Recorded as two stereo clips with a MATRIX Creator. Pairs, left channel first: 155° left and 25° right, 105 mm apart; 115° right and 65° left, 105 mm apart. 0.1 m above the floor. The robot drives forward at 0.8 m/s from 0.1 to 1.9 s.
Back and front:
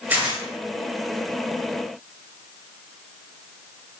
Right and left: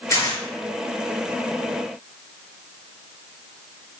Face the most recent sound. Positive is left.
turn(degrees=-150)